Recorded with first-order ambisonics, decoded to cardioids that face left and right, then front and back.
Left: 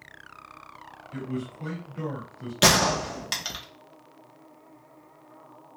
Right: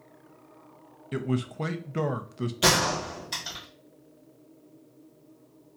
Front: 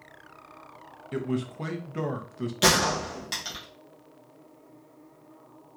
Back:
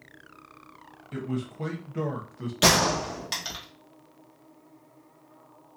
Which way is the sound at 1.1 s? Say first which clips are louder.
Right 4 dB, front 3 dB; 75° right.